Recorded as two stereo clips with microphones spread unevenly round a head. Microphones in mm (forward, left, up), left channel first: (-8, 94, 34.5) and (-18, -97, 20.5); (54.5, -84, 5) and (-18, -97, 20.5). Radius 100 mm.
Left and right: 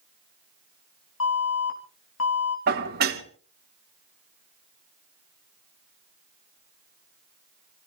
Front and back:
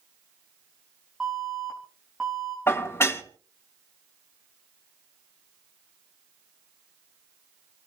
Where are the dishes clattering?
50° right, 1.8 m.